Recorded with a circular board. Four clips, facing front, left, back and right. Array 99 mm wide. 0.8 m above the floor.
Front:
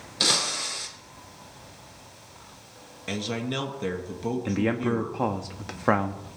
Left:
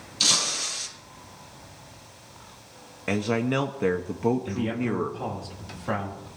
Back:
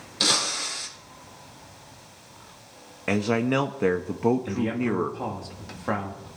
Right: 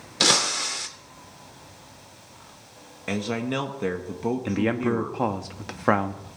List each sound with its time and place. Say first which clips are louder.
0.2 s breaking glass: right 7 dB, back 1 dB; 90° right, 1.3 m
3.1 s a man speaking: left 2 dB, back 7 dB; 165° left, 0.7 m
4.5 s a man speaking: right 4 dB, front 1 dB; 60° right, 1.0 m